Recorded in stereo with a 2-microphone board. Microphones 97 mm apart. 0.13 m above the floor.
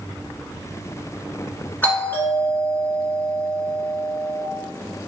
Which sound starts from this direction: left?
A doorbell, at 1.8 s.